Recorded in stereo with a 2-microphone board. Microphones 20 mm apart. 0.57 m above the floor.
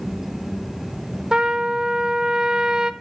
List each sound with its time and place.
1.3 s a trumpet: 40° right (ahead or behind), 0.7 m